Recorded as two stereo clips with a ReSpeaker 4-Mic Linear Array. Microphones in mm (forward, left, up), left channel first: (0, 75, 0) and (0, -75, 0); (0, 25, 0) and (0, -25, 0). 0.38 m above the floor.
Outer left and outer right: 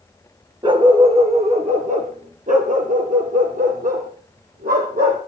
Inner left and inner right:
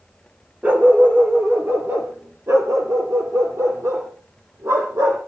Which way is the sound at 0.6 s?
35° right (ahead or behind).